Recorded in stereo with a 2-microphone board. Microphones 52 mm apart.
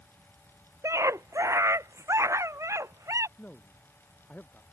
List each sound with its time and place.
0.8 s a scream: 70° right (ahead or behind)
3.4 s a man speaking: 30° left (ahead or behind)